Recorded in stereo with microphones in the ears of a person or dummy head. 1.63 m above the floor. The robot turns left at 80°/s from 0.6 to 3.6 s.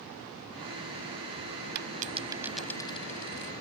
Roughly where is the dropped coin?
Behind right.